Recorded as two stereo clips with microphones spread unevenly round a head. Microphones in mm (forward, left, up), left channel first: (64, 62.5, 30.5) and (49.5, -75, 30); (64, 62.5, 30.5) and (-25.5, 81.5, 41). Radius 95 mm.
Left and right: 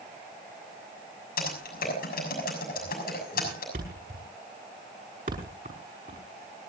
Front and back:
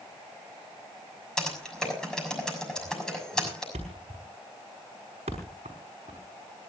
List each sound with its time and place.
1.4 s typing on a keyboard: 70° left, 6.5 m
3.7 s a thud: 145° right, 4.5 m